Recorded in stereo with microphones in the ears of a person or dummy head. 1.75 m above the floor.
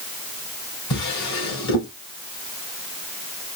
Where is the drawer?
60° left (ahead or behind), 3 m.